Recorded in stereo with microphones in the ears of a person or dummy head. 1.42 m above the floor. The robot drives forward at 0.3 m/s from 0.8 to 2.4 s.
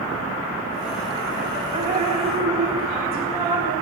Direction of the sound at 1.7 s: 35° right (ahead or behind).